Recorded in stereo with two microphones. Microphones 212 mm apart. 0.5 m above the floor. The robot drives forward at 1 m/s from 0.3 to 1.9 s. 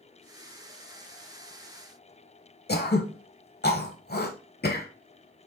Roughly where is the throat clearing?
Left.